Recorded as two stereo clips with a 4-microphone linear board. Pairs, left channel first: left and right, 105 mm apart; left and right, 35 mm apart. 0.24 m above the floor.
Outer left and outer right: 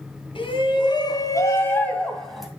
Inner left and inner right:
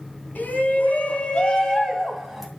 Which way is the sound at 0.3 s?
55° left (ahead or behind).